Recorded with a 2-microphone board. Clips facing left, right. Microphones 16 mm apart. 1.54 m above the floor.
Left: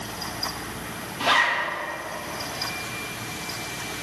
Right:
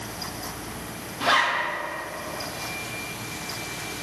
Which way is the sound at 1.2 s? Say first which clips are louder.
Left 1 dB; 35° left (ahead or behind).